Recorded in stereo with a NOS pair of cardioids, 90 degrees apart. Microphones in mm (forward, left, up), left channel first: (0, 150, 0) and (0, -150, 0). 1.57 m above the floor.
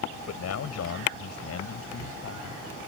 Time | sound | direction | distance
0.3 | a man speaking | 60° left | ?